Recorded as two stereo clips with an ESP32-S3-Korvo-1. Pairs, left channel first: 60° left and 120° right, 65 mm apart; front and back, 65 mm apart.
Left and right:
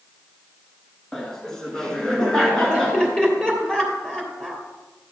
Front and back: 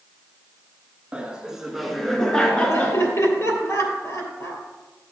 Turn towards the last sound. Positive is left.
turn(degrees=-10)